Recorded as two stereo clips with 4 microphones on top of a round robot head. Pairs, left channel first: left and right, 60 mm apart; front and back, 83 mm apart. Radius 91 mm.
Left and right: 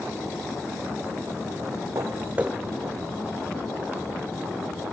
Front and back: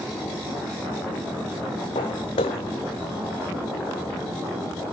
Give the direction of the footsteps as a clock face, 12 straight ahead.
1 o'clock.